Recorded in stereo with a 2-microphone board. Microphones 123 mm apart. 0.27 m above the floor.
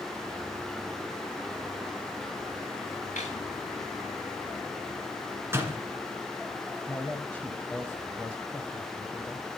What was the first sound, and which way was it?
A snare drum, 80° left.